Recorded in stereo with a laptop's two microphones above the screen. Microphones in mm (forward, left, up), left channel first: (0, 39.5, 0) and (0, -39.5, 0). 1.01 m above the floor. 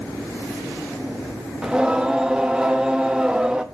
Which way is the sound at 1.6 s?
10° right (ahead or behind).